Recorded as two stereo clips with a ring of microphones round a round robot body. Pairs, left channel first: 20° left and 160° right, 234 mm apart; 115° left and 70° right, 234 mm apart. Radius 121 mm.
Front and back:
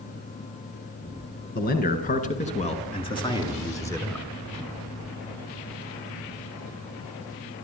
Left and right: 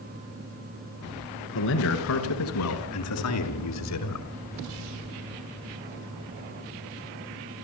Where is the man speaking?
75° left, 4.5 m; by 4.3 s 105° left, 4 m.